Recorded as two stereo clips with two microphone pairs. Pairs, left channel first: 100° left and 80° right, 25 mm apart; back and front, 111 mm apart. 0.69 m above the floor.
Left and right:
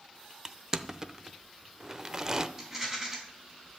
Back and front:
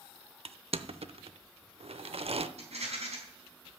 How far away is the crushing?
About 0.6 m.